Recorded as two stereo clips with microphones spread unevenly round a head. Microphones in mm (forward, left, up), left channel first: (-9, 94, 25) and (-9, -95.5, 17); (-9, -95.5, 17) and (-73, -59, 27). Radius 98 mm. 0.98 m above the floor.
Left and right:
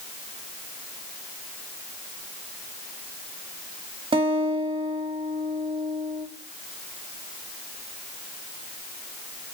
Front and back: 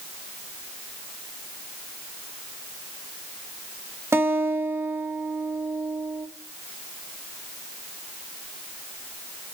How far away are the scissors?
No scissors in this recording.